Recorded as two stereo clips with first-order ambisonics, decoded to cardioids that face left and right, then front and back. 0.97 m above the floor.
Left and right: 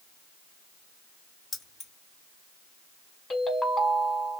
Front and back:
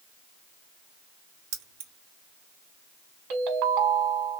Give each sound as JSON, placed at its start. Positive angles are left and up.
{"t": 1.5, "sound": "keys jangling", "azimuth_deg": 160, "distance_m": 0.9}
{"t": 3.3, "sound": "a ringtone", "azimuth_deg": 165, "distance_m": 1.4}